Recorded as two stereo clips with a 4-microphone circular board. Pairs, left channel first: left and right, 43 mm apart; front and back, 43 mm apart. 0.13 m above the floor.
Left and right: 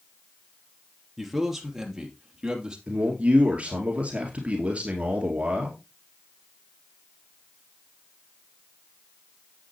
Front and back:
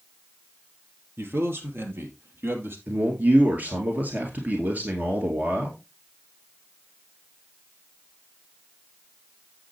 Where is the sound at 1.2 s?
175° right, 2.5 m; by 2.8 s 160° right, 3 m.